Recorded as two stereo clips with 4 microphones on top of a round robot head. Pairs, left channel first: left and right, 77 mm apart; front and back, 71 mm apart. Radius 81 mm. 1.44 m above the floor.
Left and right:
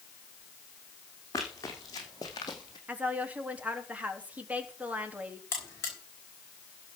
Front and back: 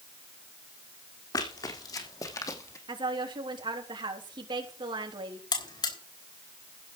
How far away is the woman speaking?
About 3.5 m.